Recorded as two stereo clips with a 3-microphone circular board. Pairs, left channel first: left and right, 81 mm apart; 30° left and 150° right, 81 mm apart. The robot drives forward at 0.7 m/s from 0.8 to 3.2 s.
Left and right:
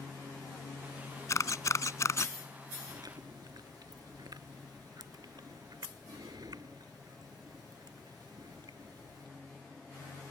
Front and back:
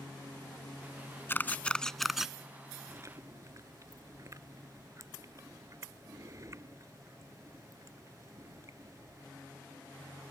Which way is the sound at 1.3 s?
75° left.